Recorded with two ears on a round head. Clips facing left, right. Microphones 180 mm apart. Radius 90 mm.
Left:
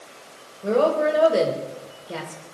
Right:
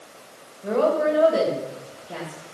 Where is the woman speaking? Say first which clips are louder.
Left 1 dB; 40° left (ahead or behind), 2.5 m.